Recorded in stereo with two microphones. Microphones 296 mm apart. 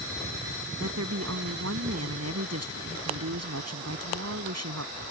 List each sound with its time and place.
0.8 s a woman speaking: 55° right (ahead or behind)